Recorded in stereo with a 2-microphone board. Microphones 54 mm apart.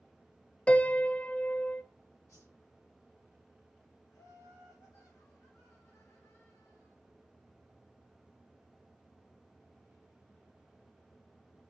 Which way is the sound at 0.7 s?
20° left (ahead or behind).